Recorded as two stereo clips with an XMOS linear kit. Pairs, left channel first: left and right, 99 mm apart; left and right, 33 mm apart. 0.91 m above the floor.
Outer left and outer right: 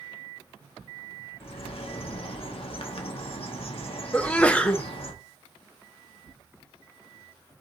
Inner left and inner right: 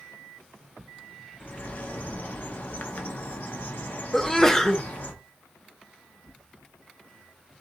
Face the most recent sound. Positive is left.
turn(degrees=10)  # may be behind; listen again after turning